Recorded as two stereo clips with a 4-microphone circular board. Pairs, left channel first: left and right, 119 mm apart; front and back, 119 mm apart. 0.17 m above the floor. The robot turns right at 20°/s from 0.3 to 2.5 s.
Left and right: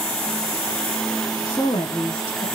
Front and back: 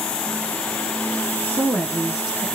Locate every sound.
1.4 s a woman speaking: 80° left, 1.9 m; by 2.5 s 100° left, 1.9 m